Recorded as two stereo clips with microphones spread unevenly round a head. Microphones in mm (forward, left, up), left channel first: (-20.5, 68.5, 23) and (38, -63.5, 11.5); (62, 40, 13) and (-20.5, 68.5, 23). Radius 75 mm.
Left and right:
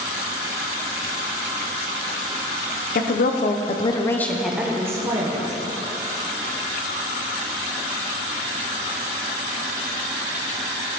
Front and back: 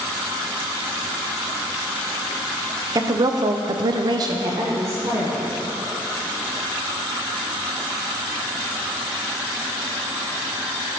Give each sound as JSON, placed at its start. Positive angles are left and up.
{"t": 3.0, "sound": "a woman speaking", "azimuth_deg": 120, "distance_m": 0.7}